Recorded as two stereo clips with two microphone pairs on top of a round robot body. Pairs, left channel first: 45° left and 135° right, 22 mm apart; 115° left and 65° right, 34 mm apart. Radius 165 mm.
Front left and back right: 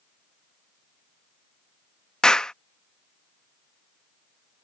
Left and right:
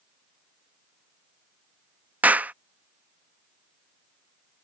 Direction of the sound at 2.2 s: 20° right.